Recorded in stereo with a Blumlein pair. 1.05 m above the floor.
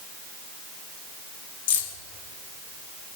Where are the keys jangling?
55° left, 2 m.